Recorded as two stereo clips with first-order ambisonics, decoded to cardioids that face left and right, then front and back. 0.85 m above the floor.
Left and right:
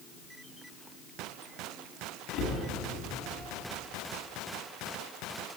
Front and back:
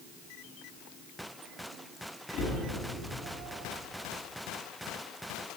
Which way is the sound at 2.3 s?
40° left.